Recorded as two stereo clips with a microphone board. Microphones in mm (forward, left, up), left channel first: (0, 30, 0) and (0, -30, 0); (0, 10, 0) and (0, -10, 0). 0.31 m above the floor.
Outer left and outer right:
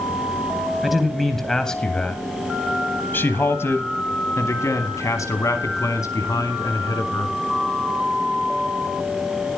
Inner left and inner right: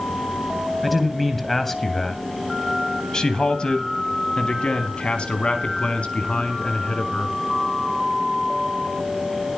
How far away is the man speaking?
About 1.7 m.